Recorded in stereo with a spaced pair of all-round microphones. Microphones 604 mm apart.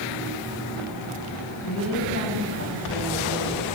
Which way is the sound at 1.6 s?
20° left (ahead or behind).